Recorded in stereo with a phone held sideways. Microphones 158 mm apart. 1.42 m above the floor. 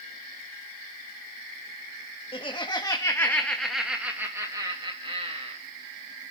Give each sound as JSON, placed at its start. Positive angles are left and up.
{"t": 2.3, "sound": "laughter", "side_deg": 35, "distance_m": 2.0}